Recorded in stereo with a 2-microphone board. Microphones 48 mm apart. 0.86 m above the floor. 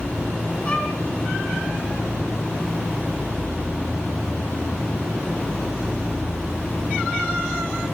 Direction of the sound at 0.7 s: 25° left (ahead or behind).